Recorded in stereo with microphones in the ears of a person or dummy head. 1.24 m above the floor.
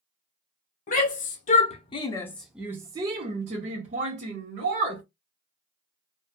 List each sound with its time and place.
0.9 s a shout: 40° left (ahead or behind), 1.1 m; by 5.0 s 40° right (ahead or behind), 1.8 m